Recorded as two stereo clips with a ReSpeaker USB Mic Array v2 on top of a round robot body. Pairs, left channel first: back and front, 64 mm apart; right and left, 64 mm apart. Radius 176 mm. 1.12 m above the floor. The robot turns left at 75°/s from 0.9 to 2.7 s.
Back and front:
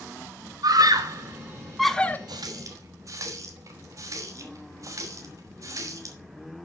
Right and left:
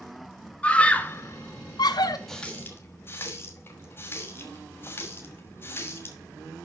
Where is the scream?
20° right, 1.0 m; by 2.2 s 115° right, 1.0 m.